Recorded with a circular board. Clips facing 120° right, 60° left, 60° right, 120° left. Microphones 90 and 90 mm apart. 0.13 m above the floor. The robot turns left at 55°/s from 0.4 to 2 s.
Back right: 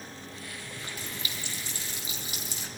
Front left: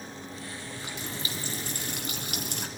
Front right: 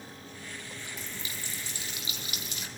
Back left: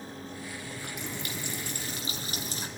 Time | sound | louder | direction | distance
0.6 | a running tap | front left 2 dB, back left 4 dB | 145° left | 3 m